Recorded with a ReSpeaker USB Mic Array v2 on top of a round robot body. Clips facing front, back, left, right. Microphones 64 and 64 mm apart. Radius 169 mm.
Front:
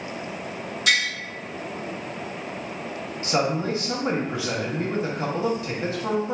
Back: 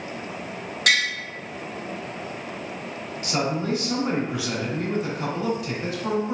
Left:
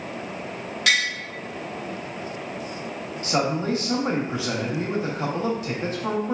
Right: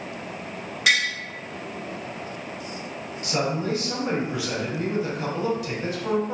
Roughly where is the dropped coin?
I don't hear a dropped coin.